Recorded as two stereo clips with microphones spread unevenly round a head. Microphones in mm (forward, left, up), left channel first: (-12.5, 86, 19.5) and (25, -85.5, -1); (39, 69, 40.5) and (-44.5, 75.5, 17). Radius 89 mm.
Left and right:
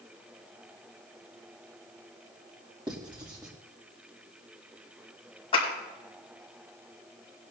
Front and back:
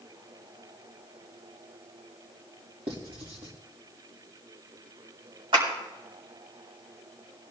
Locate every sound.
2.9 s writing: 145° right, 1.8 m
5.5 s a clap: 160° left, 4.5 m